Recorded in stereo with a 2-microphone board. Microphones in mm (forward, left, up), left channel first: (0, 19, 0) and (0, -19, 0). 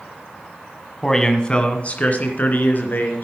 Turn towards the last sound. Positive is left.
turn(degrees=55)  # may be behind; listen again after turning